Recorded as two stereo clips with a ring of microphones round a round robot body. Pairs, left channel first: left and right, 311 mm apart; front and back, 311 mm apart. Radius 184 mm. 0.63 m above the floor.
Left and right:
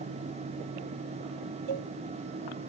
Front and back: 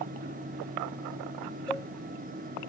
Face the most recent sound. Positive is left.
turn(degrees=-85)